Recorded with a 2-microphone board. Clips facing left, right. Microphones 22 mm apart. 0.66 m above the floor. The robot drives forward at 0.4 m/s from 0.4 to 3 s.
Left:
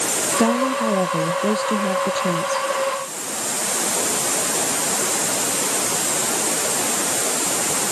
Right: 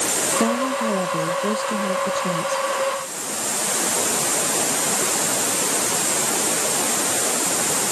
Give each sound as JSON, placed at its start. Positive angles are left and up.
{"t": 0.4, "sound": "a woman speaking", "side_deg": 25}